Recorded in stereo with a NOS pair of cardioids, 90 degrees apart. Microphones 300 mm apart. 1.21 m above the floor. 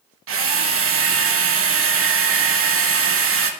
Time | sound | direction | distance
0.3 | a drill | 45° right | 1.0 m